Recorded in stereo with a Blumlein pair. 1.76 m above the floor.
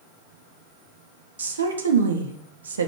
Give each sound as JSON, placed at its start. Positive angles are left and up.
{"t": 1.4, "sound": "a woman speaking", "azimuth_deg": -70, "distance_m": 0.9}